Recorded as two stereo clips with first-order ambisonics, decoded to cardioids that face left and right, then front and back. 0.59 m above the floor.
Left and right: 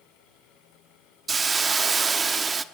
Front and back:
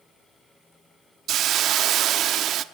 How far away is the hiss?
About 1.0 m.